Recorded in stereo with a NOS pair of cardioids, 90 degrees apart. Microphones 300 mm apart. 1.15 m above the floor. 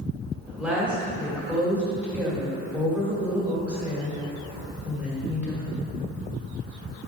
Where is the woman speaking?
5° right, 1.8 m.